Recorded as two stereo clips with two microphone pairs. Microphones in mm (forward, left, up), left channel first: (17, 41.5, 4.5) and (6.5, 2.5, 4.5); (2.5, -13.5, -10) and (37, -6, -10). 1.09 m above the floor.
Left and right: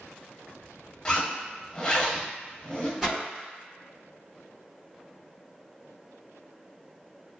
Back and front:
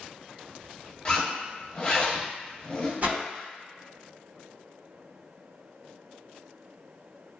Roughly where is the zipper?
Behind left.